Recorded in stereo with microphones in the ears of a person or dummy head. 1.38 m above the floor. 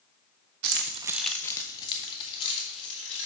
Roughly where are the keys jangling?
Right.